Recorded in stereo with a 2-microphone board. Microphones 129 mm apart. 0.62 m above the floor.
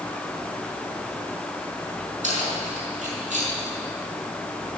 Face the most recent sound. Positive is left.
turn(degrees=-70)  # may be behind; listen again after turning